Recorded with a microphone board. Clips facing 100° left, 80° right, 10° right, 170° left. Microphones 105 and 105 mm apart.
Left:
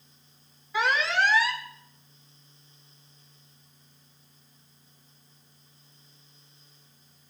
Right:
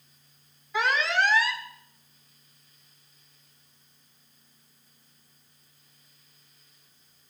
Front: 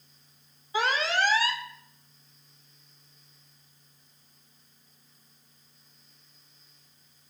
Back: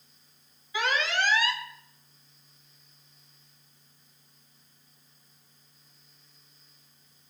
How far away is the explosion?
I don't hear an explosion.